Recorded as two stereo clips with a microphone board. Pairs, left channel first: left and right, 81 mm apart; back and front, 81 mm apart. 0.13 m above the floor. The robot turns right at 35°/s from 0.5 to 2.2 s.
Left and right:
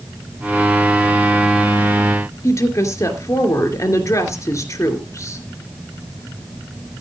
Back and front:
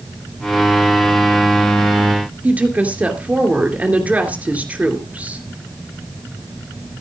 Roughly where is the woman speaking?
Ahead left.